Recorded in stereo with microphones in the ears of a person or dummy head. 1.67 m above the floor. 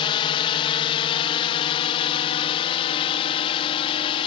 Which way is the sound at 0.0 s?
30° left (ahead or behind).